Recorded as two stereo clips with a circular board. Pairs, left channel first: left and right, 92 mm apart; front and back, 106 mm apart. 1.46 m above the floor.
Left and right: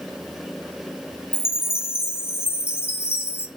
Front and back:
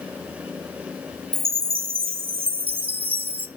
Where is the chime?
150° left, 0.9 m.